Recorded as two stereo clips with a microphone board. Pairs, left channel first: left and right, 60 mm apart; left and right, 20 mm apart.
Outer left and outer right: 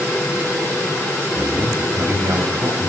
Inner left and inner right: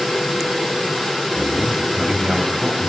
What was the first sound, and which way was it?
A man speaking, 55° right (ahead or behind).